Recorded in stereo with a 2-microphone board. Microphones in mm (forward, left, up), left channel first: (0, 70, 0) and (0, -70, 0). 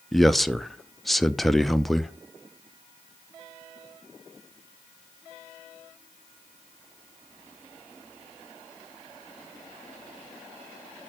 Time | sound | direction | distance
0.1 | a man speaking | centre (ahead or behind) | 0.6 m